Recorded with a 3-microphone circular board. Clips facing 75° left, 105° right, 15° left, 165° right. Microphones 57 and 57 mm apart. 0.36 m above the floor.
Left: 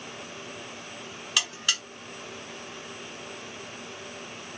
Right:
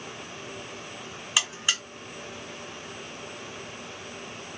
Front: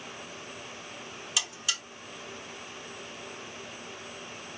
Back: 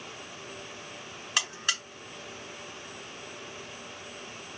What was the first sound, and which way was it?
A buzzer, 170° right.